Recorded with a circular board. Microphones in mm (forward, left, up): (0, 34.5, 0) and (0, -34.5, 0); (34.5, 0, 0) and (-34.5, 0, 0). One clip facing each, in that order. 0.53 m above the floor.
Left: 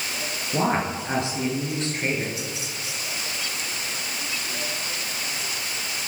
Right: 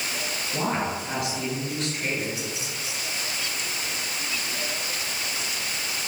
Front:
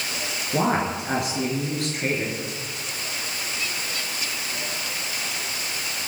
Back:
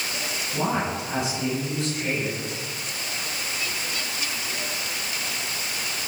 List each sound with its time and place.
0.5 s a woman speaking: 30° left, 7.5 m